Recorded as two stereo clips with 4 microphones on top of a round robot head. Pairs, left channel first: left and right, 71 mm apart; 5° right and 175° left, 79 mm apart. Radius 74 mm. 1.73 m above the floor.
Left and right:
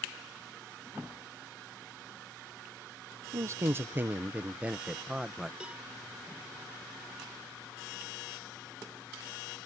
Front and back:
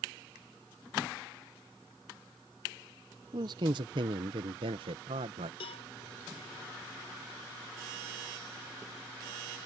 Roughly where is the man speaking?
Behind right.